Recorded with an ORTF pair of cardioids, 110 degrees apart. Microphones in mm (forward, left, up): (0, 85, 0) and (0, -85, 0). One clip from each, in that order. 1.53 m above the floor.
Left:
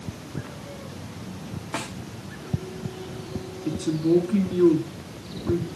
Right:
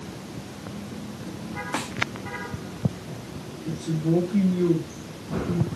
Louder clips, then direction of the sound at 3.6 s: Left 4 dB; 55° left.